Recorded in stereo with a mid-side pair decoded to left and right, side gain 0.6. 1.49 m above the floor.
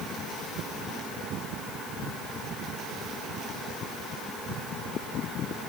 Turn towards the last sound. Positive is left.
No sound to turn to.